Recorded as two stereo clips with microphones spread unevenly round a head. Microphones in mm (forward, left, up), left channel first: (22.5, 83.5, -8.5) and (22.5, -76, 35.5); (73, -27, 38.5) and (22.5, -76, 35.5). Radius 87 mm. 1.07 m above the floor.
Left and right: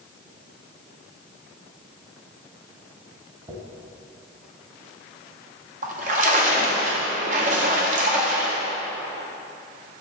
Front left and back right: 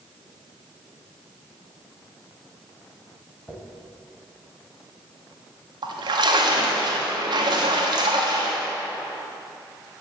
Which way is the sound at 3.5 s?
30° right.